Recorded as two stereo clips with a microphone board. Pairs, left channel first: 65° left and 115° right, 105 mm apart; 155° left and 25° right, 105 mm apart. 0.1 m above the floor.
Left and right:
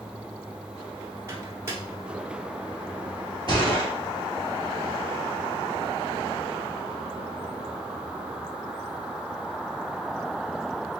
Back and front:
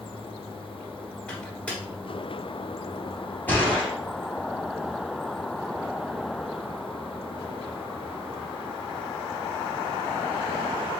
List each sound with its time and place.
1.3 s a microwave: 135° right, 1.5 m
3.5 s a gunshot: 90° left, 2 m